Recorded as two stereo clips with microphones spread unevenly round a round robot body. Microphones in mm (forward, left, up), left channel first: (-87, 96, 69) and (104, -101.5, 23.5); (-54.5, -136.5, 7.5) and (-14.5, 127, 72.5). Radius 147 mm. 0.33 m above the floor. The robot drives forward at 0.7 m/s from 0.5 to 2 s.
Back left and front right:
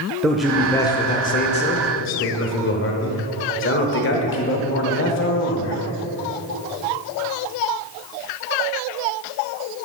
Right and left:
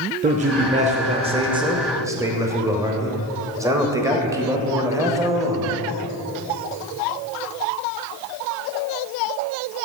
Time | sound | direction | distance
0.2 | a man speaking | 20° left | 0.8 m